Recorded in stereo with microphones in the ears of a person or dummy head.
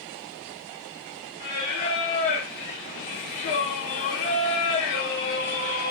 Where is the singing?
45° left (ahead or behind), 0.9 m.